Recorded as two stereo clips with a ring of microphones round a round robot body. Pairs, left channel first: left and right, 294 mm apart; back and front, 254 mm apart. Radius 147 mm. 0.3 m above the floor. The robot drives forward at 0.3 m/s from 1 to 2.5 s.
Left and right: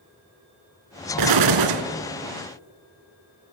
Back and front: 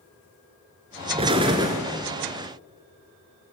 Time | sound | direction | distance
1.2 | an explosion | 70° right | 1.5 m